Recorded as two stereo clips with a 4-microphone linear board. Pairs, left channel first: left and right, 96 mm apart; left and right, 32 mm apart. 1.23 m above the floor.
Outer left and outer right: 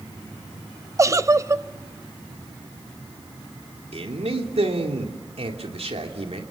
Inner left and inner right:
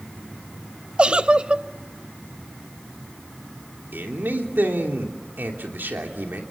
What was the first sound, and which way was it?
A giggle, 30° right (ahead or behind).